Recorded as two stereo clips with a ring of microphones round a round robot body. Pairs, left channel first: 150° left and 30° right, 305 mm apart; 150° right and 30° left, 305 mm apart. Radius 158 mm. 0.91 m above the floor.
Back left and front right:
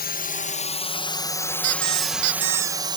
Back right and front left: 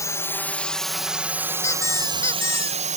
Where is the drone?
140° left; by 3.0 s 20° left.